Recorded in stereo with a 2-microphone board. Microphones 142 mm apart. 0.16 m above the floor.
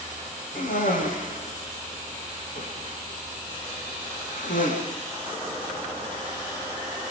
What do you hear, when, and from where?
0.6 s a cough: 70° left (ahead or behind), 9 m